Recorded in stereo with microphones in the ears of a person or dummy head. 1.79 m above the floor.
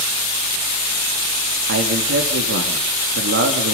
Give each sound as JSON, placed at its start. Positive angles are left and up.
{"t": 1.7, "sound": "a man speaking", "side_deg": -65, "distance_m": 2.5}